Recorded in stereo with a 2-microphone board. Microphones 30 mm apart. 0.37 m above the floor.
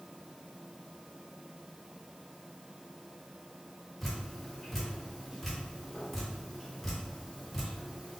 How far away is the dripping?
About 1.6 m.